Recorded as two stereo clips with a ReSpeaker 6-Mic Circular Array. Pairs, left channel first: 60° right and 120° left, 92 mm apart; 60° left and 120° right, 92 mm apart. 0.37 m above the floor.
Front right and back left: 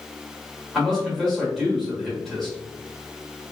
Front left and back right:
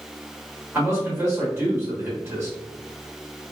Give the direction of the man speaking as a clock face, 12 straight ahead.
5 o'clock.